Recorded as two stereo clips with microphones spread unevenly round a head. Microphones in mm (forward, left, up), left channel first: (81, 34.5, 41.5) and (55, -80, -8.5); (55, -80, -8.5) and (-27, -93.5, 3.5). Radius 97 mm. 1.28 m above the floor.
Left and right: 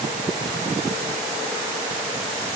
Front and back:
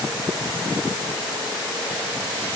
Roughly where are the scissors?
No scissors in this recording.